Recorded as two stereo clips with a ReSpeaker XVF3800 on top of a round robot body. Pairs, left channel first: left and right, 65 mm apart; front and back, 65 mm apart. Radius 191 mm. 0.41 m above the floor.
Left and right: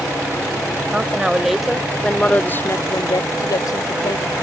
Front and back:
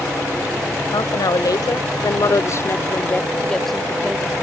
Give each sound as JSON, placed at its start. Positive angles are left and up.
{"t": 0.9, "sound": "a woman speaking", "azimuth_deg": -15}